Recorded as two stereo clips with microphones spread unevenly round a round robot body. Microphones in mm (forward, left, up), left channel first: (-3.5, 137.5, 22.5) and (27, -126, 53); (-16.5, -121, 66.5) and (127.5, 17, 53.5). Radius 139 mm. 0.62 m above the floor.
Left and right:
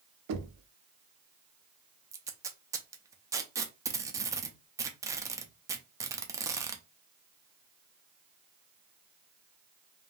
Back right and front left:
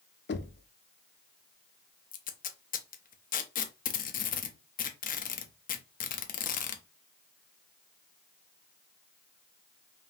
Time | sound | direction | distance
0.3 | knocking | 105° right | 0.7 m
2.1 | tape being pulled | 165° right | 0.7 m